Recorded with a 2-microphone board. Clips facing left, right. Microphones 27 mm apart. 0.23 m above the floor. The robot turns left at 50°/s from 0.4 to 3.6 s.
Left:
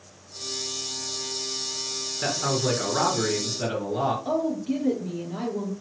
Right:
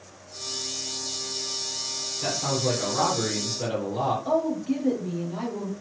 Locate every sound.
2.2 s a man speaking: 95° left, 2.5 m; by 4.2 s 25° left, 2.5 m
4.2 s a woman speaking: 15° left (ahead or behind), 3.5 m